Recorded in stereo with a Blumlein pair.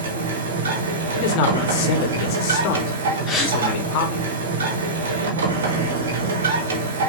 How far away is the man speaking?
About 0.8 m.